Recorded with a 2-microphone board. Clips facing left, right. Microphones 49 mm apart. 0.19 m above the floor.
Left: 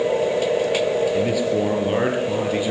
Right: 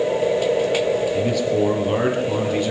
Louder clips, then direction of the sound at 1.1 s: Even; 10° left (ahead or behind).